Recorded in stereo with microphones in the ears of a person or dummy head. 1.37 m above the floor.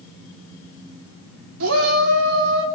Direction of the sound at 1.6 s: 90° right.